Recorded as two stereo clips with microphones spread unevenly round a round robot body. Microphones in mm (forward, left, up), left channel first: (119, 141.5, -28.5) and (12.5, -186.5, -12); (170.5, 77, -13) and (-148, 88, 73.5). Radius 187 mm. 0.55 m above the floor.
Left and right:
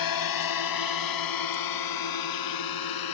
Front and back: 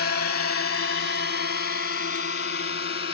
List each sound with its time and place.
0.0 s a drone: 50° left; by 3.1 s 55° left